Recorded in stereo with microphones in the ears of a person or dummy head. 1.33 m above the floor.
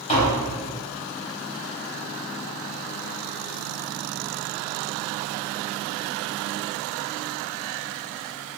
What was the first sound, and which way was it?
Tapping, 35° left (ahead or behind).